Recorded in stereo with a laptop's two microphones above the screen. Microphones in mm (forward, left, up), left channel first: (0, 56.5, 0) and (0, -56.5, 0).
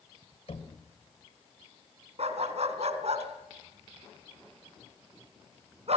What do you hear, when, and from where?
0.5 s knocking: 65° left (ahead or behind), 3 m
2.2 s a dog barking: 70° right (ahead or behind), 2.5 m